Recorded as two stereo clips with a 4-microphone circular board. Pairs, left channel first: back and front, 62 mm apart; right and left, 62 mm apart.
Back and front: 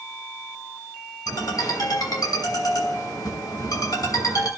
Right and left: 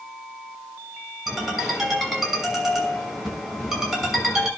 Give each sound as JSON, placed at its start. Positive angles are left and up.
{"t": 1.3, "sound": "a ringtone", "azimuth_deg": 170, "distance_m": 6.0}